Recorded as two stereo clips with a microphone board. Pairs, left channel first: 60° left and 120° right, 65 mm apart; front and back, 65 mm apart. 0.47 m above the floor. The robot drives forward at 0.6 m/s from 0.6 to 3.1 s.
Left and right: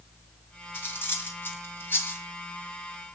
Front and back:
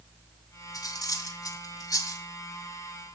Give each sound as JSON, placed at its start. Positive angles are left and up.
{"t": 0.7, "sound": "cutlery clinking", "azimuth_deg": 5, "distance_m": 2.5}